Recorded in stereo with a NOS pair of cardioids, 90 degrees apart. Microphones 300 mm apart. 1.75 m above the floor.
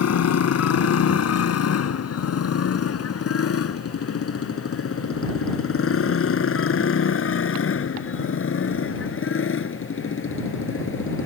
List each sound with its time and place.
0.0 s a motorcycle: 60° left; by 11.3 s 40° left